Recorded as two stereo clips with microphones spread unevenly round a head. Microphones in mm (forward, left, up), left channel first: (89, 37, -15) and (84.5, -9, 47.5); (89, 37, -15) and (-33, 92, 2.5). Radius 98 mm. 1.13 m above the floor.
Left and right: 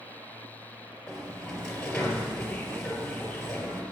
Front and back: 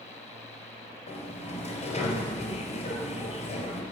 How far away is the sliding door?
About 4 m.